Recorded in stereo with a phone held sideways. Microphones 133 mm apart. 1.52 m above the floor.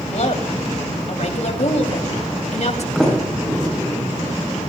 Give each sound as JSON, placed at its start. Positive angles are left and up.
{"t": 0.1, "sound": "a woman speaking", "side_deg": 60, "distance_m": 3.0}
{"t": 3.0, "sound": "a sliding door", "side_deg": 0, "distance_m": 8.0}